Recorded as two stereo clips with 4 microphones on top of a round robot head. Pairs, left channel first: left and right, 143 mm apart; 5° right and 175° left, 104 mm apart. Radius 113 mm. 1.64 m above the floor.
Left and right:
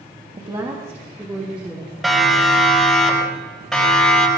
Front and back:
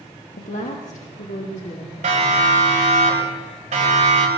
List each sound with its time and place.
0.3 s a woman speaking: 25° right, 1.4 m; by 1.9 s 5° right, 3 m
2.0 s a siren: straight behind, 6.5 m; by 4.3 s 175° left, 5.5 m